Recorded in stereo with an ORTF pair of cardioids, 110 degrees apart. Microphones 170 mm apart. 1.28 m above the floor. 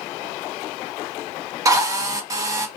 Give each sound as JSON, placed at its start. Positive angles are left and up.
{"t": 1.6, "sound": "a drill", "azimuth_deg": -20, "distance_m": 1.1}